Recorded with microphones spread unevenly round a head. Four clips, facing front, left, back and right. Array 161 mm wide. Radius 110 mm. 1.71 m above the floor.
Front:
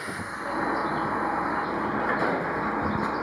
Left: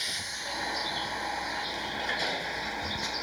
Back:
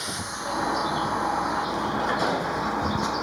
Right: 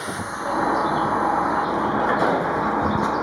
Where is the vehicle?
85° right; by 3.2 s 90° right.